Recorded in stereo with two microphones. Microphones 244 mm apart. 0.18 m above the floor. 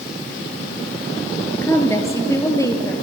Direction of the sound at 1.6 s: 10° left (ahead or behind).